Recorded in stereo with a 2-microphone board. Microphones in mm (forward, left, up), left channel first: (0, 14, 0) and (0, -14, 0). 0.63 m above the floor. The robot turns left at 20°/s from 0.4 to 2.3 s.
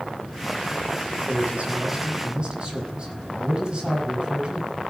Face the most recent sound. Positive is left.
turn(degrees=-30)  # may be behind; listen again after turning